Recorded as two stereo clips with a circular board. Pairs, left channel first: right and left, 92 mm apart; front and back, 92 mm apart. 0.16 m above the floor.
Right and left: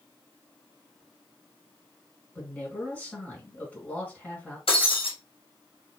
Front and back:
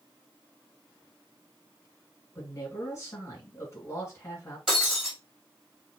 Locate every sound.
2.4 s a man speaking: 25° right, 1.6 m
4.7 s breaking glass: 95° right, 1.6 m